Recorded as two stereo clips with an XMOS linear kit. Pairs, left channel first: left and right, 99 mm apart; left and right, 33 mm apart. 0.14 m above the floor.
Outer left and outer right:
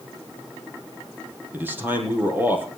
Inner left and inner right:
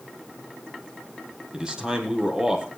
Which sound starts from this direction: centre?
A man speaking, at 1.5 s.